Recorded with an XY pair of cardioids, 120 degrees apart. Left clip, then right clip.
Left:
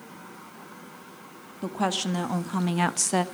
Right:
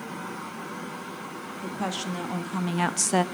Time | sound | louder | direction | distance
1.6 | a woman speaking | left 5 dB | 35° left | 1.5 m